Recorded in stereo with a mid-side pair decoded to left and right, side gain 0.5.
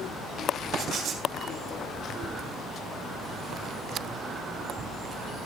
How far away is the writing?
About 3.5 m.